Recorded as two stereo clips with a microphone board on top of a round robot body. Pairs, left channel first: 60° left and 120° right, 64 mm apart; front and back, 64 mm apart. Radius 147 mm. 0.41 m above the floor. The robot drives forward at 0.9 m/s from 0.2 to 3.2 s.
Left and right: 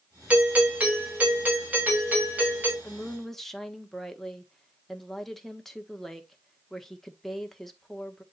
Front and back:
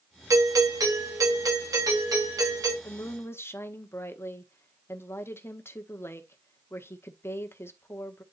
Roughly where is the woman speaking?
Ahead.